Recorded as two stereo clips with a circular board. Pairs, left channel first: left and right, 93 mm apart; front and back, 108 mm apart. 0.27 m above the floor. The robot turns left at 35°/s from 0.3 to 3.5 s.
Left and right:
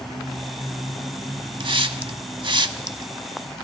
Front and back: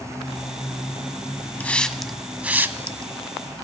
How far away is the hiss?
About 0.6 m.